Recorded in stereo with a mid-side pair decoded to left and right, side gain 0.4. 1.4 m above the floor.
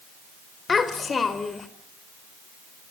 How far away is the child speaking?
About 4 m.